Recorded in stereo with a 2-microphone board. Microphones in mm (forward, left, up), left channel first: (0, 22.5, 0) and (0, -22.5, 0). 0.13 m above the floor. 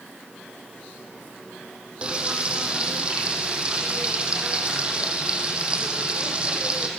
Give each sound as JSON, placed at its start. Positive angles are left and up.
{"t": 2.0, "sound": "frying", "side_deg": -25, "distance_m": 4.5}